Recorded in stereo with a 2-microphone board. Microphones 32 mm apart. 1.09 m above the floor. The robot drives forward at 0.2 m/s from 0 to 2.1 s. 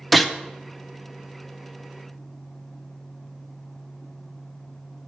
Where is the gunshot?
Centre (ahead or behind), 0.5 m.